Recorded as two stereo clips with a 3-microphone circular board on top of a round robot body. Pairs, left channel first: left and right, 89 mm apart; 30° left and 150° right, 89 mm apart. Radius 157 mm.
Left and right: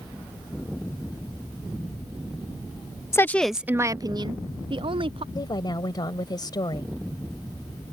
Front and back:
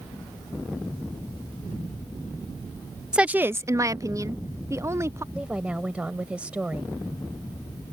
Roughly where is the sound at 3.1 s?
Behind left.